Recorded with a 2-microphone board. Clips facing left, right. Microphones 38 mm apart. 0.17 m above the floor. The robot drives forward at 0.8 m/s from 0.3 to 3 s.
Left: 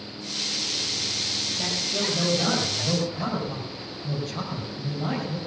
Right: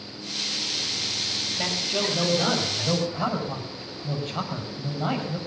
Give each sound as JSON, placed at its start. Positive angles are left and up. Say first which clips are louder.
{"t": 1.6, "sound": "a man speaking", "louder": "right 3 dB", "side_deg": -40, "distance_m": 4.5}